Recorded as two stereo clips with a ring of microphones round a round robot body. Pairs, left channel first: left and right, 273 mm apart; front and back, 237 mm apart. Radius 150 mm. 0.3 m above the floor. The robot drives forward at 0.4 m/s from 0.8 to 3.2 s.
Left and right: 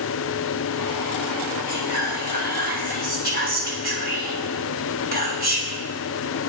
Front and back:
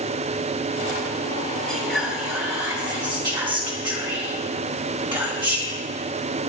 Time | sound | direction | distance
1.7 | whispering | 85° right | 1.6 m